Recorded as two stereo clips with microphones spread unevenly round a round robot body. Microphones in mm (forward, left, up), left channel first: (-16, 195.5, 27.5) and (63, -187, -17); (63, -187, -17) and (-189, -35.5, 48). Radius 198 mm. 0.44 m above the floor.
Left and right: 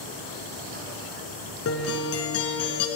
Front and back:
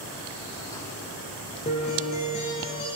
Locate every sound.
1.6 s a guitar: 45° left, 1.2 m